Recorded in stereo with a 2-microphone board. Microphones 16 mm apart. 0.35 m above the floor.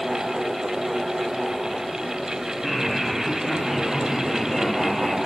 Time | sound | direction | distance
2.6 | laughter | 10° right (ahead or behind) | 2.5 m